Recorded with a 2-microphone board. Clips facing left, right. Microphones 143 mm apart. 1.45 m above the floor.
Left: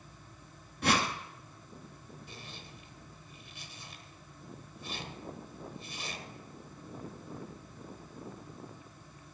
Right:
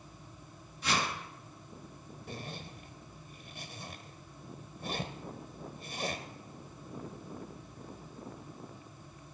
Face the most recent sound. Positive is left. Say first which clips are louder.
# right 6 dB
turn(degrees=-50)  # may be behind; listen again after turning